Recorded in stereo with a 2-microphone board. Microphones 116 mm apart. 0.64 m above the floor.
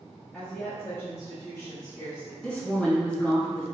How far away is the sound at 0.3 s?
About 1.1 m.